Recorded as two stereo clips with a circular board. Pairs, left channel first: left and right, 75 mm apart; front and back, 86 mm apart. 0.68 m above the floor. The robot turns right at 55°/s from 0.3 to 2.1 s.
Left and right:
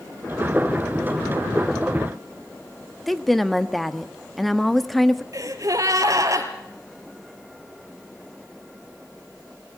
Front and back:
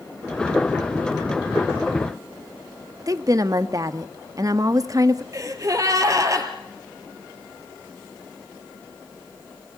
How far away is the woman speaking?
About 0.9 m.